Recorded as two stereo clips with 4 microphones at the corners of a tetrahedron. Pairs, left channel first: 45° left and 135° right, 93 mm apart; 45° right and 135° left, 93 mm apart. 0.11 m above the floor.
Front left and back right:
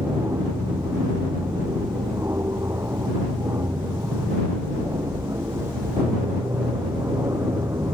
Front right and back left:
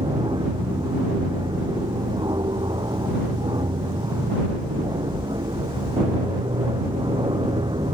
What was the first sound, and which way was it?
An aircraft, 170° left.